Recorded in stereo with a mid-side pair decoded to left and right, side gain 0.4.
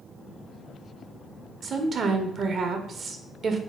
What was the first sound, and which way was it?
A woman speaking, 55° right.